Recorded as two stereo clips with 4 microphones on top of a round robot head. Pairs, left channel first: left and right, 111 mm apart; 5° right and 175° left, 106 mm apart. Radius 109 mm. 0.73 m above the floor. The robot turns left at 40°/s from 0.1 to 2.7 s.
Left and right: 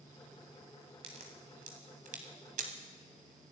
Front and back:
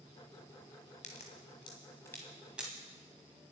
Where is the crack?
35° right, 1.3 m; by 2.7 s 105° right, 1.3 m.